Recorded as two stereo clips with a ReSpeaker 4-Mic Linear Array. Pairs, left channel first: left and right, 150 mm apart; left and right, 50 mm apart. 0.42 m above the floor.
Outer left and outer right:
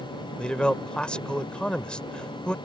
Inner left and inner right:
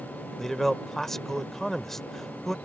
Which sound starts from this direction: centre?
A man speaking, at 0.4 s.